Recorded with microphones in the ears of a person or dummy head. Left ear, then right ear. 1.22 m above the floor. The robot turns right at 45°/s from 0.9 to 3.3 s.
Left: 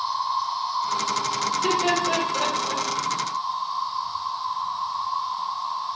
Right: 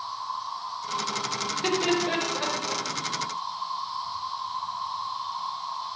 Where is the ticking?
No ticking in this recording.